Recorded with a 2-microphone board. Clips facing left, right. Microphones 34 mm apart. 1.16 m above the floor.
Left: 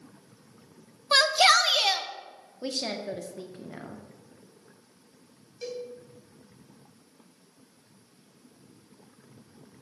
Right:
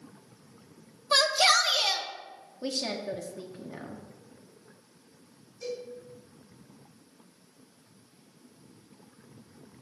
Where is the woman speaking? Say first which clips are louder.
Even; 10° left (ahead or behind), 1.1 m.